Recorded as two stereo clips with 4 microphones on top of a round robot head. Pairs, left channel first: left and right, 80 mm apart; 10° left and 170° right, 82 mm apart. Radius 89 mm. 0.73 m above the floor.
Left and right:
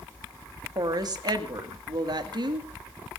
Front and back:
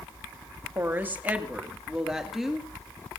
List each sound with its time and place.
0.8 s a woman speaking: 115° right, 1.9 m; by 2.7 s 80° right, 2.5 m